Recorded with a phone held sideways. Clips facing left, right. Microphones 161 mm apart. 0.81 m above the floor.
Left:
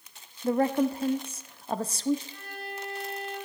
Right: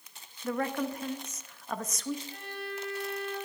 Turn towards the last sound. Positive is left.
turn(degrees=-55)  # may be behind; listen again after turning